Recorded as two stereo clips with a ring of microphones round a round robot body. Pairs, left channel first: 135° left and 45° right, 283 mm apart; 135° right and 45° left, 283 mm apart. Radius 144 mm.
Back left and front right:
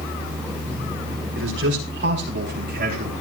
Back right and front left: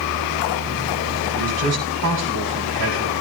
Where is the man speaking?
5° left, 5.5 m; by 3.1 s 15° left, 6 m.